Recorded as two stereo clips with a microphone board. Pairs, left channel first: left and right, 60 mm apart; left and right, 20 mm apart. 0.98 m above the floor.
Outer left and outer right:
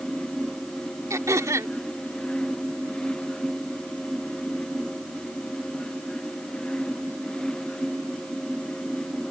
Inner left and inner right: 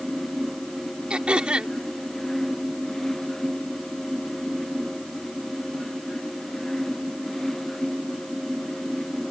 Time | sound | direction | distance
1.1 | throat clearing | 60° right (ahead or behind) | ?